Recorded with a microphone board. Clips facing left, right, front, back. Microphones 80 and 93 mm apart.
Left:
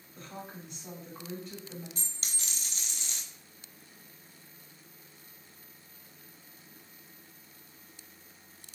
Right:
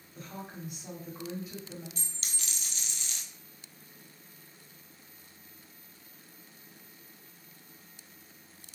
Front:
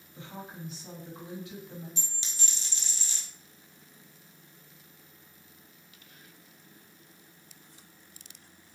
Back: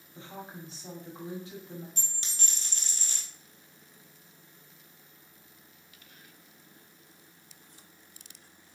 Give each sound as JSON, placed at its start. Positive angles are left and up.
{"t": 0.1, "sound": "a woman speaking", "azimuth_deg": -165, "distance_m": 1.7}
{"t": 2.0, "sound": "a dropped coin", "azimuth_deg": 140, "distance_m": 0.9}